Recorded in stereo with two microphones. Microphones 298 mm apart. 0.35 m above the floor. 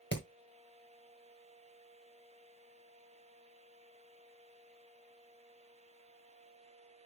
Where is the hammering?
35° left (ahead or behind), 1.5 m.